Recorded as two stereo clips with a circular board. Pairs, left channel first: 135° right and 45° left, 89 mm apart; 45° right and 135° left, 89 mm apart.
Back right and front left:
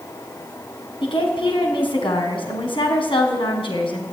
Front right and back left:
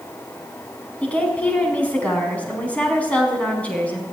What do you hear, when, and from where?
1.0 s a woman speaking: 120° right, 4 m